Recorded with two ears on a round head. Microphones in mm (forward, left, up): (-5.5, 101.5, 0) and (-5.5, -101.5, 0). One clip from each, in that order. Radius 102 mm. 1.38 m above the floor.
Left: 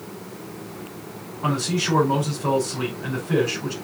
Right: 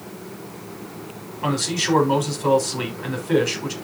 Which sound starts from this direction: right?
A man speaking, at 1.4 s.